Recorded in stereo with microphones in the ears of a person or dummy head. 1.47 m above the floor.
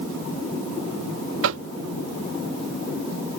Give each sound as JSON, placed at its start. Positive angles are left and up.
{"t": 1.4, "sound": "knocking", "side_deg": -80}